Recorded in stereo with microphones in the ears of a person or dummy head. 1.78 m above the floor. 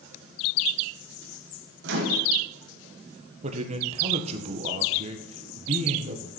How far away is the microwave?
About 2.5 m.